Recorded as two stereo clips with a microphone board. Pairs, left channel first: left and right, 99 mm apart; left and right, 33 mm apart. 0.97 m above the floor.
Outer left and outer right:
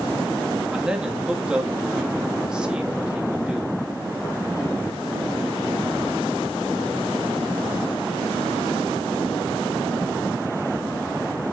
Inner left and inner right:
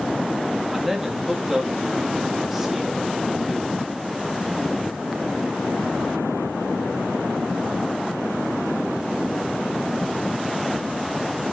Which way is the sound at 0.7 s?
10° right (ahead or behind).